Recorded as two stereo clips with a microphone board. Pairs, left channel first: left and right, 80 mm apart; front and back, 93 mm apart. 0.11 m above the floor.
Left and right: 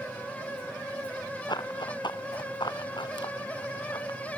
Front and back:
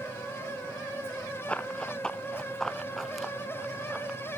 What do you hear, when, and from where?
1.5 s running footsteps: 75° left; by 4.2 s 100° left